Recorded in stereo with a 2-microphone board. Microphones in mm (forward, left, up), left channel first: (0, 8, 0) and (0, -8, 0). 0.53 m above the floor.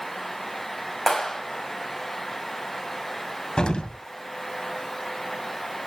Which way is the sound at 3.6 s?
85° left.